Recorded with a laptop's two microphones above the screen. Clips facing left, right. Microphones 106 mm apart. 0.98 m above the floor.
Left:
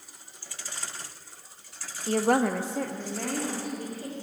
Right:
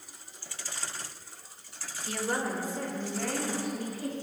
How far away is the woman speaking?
About 0.8 m.